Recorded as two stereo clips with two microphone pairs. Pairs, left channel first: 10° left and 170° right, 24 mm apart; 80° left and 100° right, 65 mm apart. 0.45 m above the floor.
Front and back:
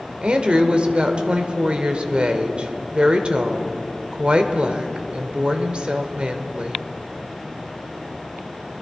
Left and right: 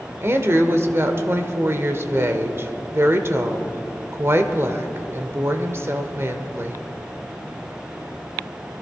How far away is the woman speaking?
About 1.2 m.